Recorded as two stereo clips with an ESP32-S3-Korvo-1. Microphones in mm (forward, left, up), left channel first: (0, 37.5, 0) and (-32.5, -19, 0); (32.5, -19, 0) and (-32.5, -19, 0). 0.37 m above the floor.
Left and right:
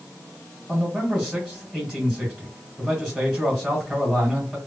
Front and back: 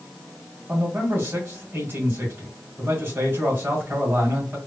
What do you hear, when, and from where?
0.7 s a man speaking: 175° left, 1.6 m